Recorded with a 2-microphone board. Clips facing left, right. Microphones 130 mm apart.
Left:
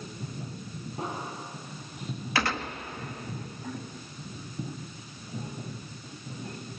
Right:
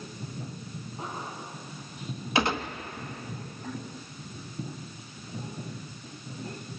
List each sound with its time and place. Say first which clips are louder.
1.0 s an explosion: left 3 dB; 85° left, 7 m
2.4 s a gunshot: right 3 dB; 20° right (ahead or behind), 1.1 m